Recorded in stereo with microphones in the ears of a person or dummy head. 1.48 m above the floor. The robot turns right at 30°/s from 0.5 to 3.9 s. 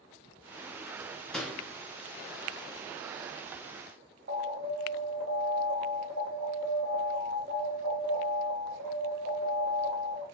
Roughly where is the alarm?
Right.